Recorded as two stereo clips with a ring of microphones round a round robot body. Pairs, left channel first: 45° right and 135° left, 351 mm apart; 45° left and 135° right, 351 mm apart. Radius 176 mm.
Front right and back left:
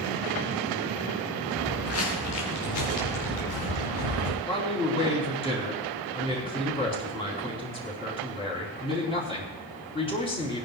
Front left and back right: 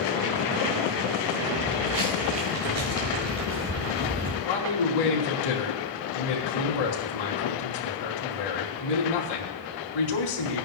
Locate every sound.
1.6 s footsteps: 100° right, 4.5 m; by 4.3 s 65° right, 3 m
4.4 s a man speaking: 30° left, 4 m